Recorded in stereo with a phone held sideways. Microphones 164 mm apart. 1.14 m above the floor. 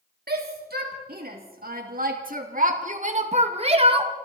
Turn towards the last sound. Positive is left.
turn(degrees=-30)  # may be behind; listen again after turning